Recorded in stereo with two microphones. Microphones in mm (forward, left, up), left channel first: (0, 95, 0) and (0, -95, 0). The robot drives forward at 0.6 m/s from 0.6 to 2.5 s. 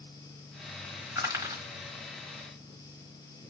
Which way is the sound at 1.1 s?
15° right (ahead or behind).